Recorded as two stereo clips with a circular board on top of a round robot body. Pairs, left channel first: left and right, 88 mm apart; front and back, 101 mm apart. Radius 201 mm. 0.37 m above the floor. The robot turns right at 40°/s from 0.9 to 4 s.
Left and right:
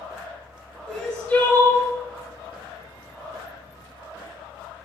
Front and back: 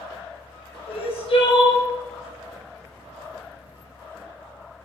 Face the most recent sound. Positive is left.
turn(degrees=130)